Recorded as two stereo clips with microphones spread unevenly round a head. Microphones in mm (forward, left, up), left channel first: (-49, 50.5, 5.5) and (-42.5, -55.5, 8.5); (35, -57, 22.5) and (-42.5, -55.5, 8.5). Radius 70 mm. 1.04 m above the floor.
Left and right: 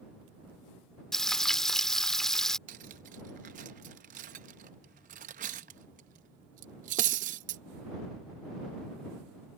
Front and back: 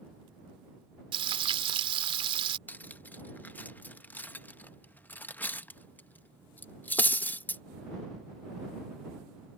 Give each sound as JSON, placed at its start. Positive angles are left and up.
{"t": 1.1, "sound": "frying", "azimuth_deg": 180}
{"t": 2.7, "sound": "cutlery clinking", "azimuth_deg": -70}